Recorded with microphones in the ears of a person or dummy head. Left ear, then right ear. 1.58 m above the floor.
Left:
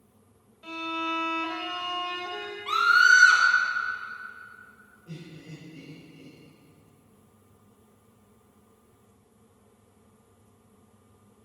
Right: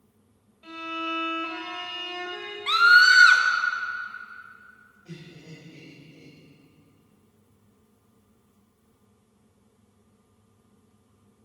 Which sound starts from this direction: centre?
A violin, at 0.6 s.